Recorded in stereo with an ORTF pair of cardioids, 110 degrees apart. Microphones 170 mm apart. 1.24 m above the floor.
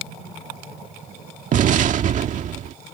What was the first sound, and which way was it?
An explosion, 50° right.